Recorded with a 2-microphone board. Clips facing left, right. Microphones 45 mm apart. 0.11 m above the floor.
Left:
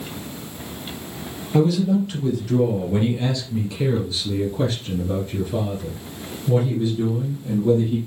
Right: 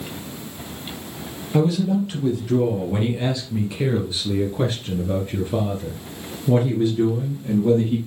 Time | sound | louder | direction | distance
1.5 | a man speaking | left 1 dB | 5° right (ahead or behind) | 3 m